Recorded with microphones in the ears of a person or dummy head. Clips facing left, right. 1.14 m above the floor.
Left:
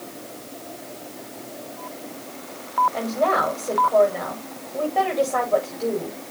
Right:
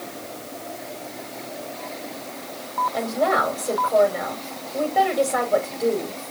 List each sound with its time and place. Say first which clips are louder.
2.9 s a woman speaking: right 2 dB; 15° right (ahead or behind), 6 m